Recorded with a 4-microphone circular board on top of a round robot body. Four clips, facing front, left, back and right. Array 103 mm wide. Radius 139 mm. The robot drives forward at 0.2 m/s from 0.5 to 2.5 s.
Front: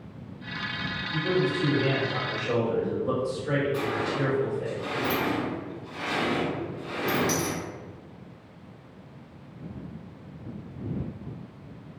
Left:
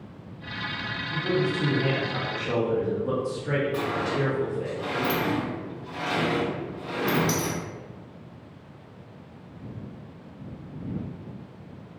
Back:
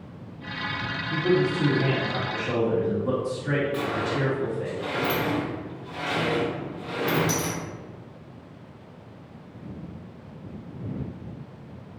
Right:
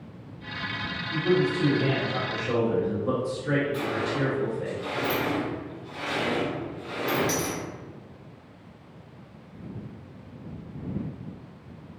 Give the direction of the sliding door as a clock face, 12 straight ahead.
8 o'clock.